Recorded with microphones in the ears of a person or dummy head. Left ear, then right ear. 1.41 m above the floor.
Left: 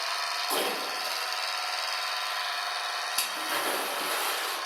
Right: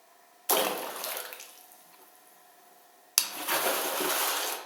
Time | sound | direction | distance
0.5 | a splash | 60° right (ahead or behind) | 0.6 m